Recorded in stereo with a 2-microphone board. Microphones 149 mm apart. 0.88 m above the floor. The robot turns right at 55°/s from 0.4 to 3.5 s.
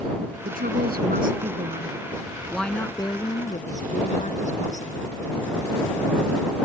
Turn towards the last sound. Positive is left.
turn(degrees=55)